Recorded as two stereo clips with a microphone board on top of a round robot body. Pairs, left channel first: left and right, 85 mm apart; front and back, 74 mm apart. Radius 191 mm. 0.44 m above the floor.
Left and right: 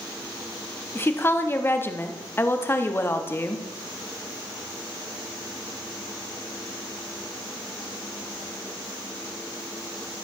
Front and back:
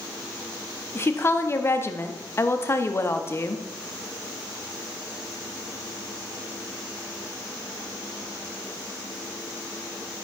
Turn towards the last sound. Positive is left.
turn(degrees=40)